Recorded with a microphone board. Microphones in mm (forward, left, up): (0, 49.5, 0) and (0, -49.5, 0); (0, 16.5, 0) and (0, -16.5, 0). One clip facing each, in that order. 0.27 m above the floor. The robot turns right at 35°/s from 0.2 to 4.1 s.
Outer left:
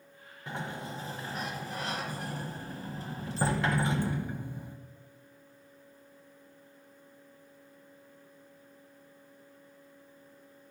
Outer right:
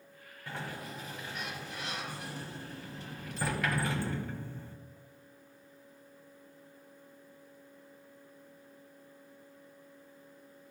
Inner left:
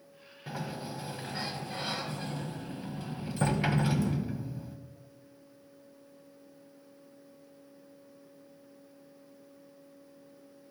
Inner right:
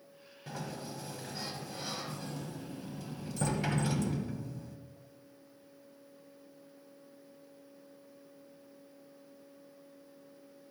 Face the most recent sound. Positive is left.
turn(degrees=155)